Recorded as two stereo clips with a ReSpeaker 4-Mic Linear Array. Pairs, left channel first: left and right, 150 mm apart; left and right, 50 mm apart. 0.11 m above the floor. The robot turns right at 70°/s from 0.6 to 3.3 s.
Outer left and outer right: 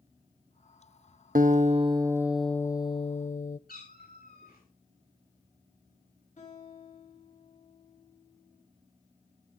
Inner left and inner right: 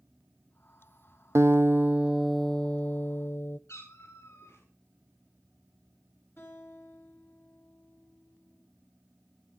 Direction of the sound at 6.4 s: 60° left (ahead or behind).